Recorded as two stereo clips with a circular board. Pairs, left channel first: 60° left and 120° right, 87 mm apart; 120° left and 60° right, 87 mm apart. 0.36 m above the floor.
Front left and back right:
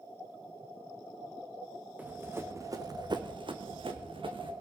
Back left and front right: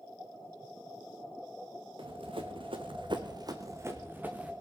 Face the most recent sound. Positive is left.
turn(degrees=-135)